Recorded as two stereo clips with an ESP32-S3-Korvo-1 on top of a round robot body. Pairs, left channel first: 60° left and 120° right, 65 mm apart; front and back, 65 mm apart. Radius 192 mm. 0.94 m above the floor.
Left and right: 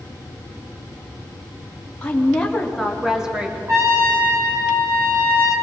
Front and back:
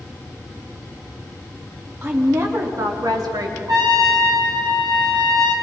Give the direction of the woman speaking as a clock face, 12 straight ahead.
8 o'clock.